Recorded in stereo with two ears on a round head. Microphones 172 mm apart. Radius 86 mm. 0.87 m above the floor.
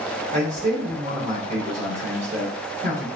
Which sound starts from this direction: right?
A man speaking, at 0.3 s.